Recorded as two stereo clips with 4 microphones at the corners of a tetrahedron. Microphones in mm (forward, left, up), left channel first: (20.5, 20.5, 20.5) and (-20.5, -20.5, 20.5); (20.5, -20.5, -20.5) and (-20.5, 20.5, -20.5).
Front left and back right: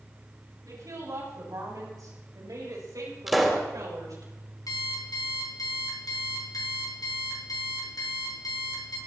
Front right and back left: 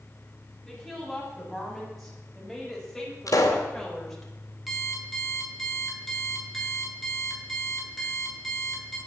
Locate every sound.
0.7 s a woman speaking: 135° right, 7.5 m; by 4.3 s 130° right, 4.5 m
3.3 s a pop: 45° right, 2.5 m
4.7 s an alarm clock: 45° left, 4 m